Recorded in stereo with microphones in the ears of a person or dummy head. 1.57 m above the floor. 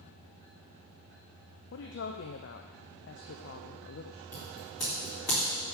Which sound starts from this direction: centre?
Scissors, at 4.3 s.